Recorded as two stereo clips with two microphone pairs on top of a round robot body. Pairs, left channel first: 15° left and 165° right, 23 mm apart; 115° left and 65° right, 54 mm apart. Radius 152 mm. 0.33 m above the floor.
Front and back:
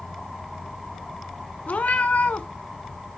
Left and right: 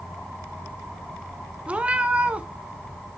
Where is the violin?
No violin in this recording.